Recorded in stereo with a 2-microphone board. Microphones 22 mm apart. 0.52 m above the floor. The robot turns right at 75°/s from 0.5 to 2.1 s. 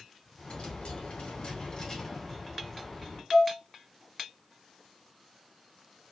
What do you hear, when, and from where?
0.4 s a dropped coin: 50° left, 1.9 m; by 3.2 s 170° left, 1.9 m
3.3 s dishes clattering: 25° left (ahead or behind), 0.8 m